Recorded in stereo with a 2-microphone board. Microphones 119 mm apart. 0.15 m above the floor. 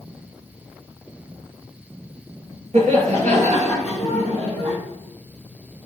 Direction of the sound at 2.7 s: 65° right (ahead or behind).